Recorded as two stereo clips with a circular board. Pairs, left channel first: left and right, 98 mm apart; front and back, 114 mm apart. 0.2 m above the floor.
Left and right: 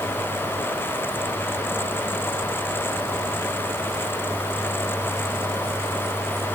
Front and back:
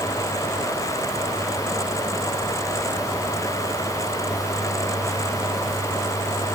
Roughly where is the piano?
I don't hear a piano.